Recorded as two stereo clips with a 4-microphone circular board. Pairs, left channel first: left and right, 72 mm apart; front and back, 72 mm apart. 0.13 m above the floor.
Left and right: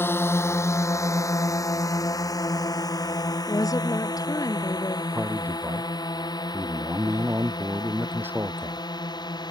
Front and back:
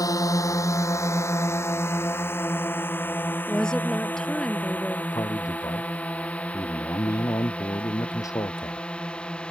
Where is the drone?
35° left; by 9.5 s 75° left.